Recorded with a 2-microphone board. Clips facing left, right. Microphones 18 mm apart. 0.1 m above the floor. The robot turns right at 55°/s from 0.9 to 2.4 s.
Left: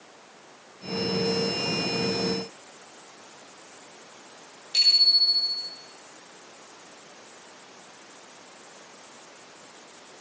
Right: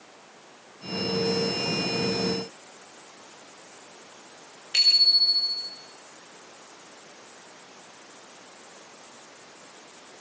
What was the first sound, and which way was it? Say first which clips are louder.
A bicycle bell: even; 50° right (ahead or behind).